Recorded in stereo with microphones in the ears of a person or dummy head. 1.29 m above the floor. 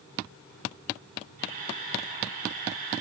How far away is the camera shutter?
About 2.5 m.